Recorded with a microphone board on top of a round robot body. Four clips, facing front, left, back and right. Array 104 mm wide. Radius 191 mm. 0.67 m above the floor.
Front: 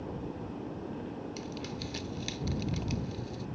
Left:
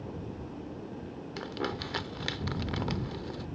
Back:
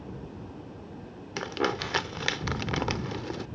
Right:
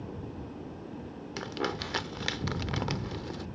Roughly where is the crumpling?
Behind.